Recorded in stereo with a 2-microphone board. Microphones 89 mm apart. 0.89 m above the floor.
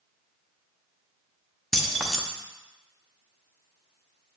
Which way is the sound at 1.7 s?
Centre (ahead or behind).